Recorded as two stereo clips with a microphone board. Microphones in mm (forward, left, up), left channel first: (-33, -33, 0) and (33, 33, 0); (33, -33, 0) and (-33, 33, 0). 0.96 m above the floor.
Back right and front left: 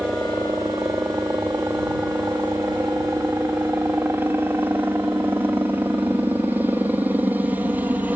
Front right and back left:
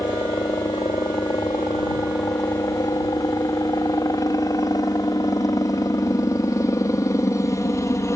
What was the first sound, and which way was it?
A helicopter, 15° right.